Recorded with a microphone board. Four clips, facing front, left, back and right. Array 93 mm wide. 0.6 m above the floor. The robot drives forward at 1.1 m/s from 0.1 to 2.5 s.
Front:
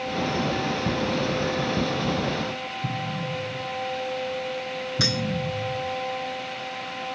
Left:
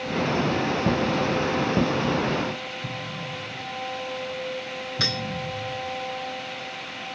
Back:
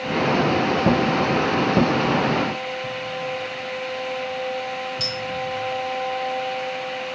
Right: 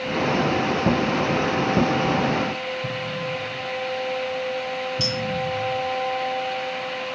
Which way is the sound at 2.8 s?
10° right.